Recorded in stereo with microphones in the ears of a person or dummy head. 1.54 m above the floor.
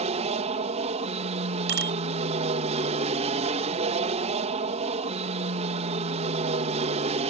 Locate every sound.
0.0 s an aircraft: 35° right (ahead or behind)
1.7 s a bicycle bell: 65° right (ahead or behind)